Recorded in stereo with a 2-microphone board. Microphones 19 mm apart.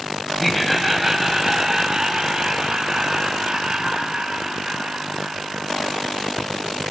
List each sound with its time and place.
0.4 s laughter: 5° left (ahead or behind), 1.6 m; by 6.6 s 75° right (ahead or behind), 6 m